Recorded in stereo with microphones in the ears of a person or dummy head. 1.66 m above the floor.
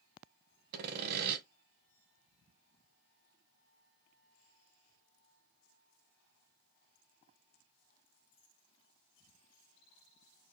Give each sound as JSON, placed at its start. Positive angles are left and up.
{"t": 0.7, "sound": "sawing", "side_deg": -50, "distance_m": 0.7}